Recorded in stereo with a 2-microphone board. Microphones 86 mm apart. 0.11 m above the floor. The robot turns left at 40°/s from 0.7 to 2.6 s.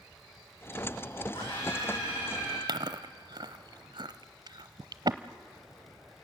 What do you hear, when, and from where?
1.3 s a scream: 95° left, 9.5 m; by 2.6 s 45° left, 9.5 m
2.7 s chewing: 50° right (ahead or behind), 0.6 m